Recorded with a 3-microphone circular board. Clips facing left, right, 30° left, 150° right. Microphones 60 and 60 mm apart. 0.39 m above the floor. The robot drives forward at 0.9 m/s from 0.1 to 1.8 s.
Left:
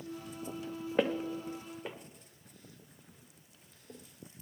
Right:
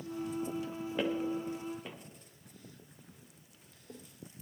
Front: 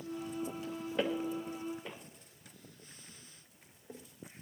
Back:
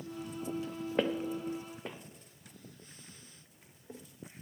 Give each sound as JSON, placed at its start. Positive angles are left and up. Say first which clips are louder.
{"t": 1.0, "sound": "footsteps", "louder": "left 2 dB, back 2 dB", "azimuth_deg": 150, "distance_m": 1.3}